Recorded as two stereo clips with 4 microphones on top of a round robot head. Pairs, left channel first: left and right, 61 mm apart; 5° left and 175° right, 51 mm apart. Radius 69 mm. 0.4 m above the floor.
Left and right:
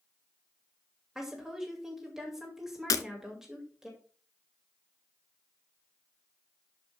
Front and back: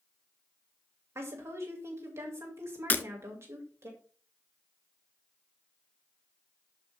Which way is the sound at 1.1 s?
175° right.